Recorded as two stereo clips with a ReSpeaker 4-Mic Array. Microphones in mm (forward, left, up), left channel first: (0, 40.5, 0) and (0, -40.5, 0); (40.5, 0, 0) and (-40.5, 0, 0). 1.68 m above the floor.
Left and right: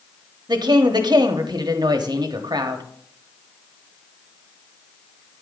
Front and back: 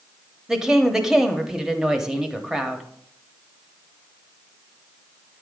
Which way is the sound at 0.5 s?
95° right.